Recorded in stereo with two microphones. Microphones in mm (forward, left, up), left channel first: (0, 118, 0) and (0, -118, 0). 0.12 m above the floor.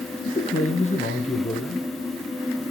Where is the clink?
No clink in this recording.